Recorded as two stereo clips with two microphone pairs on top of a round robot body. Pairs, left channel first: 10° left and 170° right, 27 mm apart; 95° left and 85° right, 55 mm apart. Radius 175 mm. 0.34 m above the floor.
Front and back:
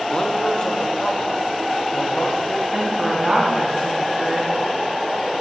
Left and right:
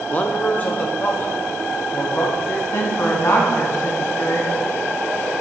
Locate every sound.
0.1 s a man speaking: 55° left, 1.4 m; by 2.6 s 45° left, 3.5 m
2.7 s a woman speaking: 115° left, 3.5 m